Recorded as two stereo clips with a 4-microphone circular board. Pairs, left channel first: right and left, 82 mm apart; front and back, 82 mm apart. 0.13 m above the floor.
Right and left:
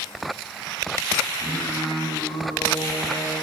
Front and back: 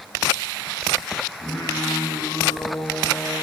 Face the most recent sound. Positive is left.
turn(degrees=-55)